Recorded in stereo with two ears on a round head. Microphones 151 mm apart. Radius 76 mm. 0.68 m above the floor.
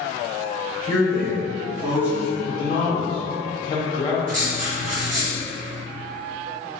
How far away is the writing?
About 1.5 m.